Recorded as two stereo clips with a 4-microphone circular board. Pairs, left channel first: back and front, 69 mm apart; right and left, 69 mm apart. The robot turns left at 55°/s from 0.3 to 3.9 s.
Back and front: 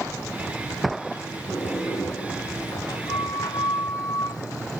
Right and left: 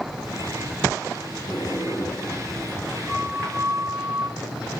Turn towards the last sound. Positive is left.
turn(degrees=120)